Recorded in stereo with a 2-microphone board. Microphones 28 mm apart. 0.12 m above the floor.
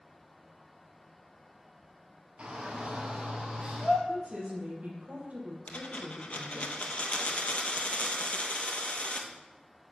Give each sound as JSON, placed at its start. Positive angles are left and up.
{"t": 2.4, "sound": "a shout", "side_deg": -45, "distance_m": 2.5}
{"t": 4.1, "sound": "a woman speaking", "side_deg": -55, "distance_m": 3.5}
{"t": 5.7, "sound": "a dropped coin", "side_deg": 55, "distance_m": 1.4}